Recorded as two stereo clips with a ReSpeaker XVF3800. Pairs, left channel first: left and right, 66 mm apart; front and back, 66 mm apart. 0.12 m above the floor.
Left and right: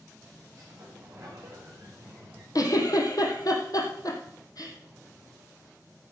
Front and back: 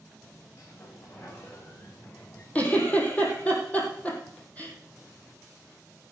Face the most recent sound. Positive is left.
turn(degrees=70)